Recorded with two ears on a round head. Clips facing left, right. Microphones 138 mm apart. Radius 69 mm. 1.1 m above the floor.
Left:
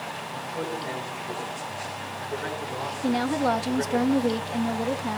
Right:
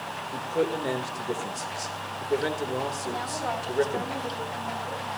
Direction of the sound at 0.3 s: 45° right (ahead or behind).